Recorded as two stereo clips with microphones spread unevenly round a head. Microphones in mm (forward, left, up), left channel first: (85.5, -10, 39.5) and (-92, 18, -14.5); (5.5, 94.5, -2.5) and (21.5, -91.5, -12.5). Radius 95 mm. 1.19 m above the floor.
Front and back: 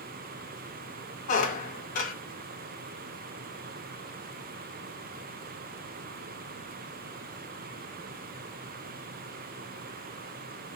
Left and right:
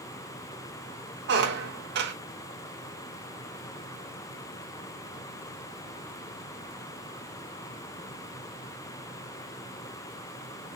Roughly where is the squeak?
Ahead right.